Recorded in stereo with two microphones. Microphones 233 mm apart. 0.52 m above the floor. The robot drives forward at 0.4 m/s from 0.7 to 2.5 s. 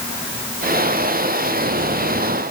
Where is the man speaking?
No man speaking in this recording.